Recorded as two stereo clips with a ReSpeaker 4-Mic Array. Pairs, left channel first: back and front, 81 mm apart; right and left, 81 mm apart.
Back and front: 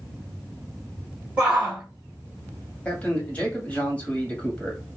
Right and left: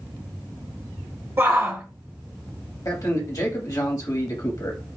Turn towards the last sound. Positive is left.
turn(degrees=-110)